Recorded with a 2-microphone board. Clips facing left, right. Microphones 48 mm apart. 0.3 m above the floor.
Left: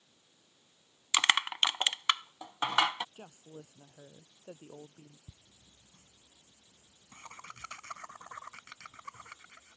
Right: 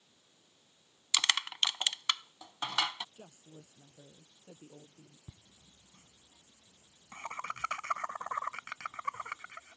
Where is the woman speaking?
45° left (ahead or behind).